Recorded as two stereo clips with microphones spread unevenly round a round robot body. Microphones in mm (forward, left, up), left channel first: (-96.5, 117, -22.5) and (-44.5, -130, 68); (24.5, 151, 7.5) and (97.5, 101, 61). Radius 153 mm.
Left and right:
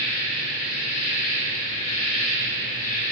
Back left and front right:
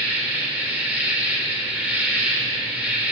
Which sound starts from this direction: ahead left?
An insect, at 0.0 s.